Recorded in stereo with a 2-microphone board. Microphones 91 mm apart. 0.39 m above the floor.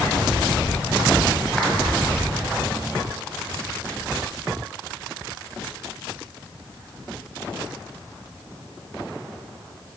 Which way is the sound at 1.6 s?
15° left (ahead or behind).